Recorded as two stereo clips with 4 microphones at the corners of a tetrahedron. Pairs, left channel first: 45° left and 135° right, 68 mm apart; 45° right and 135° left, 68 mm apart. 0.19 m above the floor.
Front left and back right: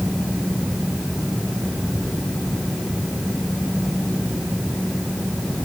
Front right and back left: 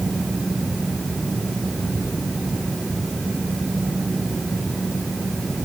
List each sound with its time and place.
Only background noise.